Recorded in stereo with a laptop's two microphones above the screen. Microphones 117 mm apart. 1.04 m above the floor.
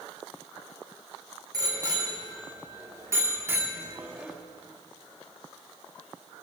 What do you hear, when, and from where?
1.5 s a bicycle bell: 35° right (ahead or behind), 3 m; by 4.3 s 10° right (ahead or behind), 1.4 m